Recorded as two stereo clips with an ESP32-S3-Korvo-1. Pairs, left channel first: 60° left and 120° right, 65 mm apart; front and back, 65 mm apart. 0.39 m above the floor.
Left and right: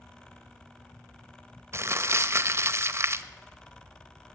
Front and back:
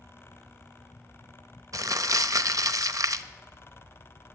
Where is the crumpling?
160° right, 0.7 m.